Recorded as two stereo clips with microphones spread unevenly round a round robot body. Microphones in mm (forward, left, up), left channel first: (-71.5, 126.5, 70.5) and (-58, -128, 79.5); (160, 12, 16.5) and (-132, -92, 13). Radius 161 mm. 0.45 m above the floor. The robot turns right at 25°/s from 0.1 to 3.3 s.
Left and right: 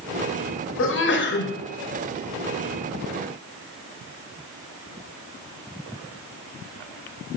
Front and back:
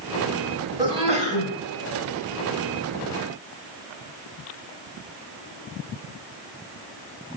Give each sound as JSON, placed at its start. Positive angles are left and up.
{"t": 0.8, "sound": "a sneeze", "azimuth_deg": 120, "distance_m": 2.0}